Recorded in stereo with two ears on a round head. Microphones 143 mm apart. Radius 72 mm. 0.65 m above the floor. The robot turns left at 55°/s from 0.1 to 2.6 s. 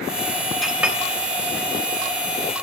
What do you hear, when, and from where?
0.6 s a clink: centre (ahead or behind), 0.8 m; by 1.0 s 15° right (ahead or behind), 0.8 m